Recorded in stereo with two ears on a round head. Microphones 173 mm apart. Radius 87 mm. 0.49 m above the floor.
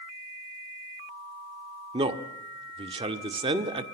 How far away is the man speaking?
About 1.4 m.